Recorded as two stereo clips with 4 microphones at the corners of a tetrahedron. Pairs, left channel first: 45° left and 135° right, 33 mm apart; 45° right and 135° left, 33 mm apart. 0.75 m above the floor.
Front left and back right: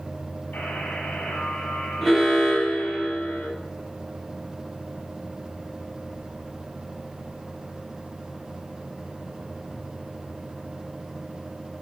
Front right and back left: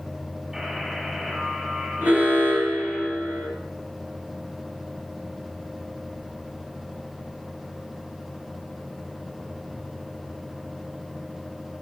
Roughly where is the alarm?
Behind left.